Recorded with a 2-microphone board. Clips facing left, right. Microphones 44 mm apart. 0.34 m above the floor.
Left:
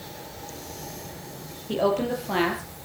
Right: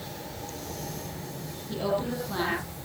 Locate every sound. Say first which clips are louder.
1.7 s a woman speaking: left 5 dB; 70° left (ahead or behind), 7.5 m